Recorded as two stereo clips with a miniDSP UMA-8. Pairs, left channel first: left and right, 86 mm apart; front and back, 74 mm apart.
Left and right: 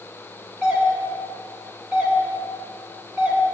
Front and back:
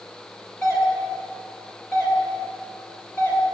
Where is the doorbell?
25° right, 2.5 m.